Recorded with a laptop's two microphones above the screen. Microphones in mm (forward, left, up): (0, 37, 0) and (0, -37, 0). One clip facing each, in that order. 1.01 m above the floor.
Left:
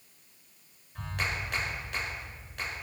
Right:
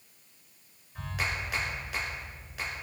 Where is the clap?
5° right (ahead or behind), 4 m.